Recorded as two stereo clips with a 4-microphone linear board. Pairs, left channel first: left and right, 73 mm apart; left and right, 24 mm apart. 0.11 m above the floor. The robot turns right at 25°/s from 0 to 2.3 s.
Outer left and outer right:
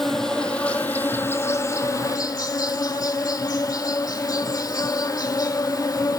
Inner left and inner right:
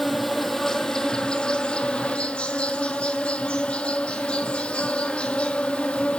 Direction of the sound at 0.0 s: Straight ahead.